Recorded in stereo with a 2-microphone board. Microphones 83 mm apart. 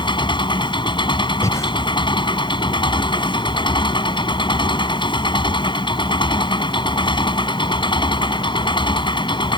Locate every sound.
0.0 s an engine running: 70° left (ahead or behind)
1.4 s breathing: 35° left (ahead or behind)